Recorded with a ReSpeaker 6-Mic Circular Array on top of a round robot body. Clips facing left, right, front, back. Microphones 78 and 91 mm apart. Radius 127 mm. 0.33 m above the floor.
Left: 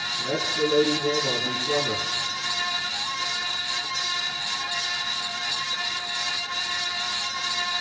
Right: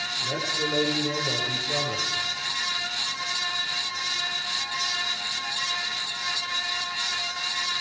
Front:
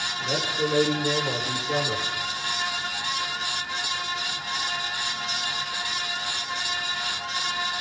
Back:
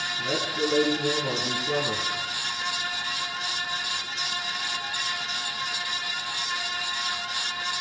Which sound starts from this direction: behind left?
A man speaking, at 0.2 s.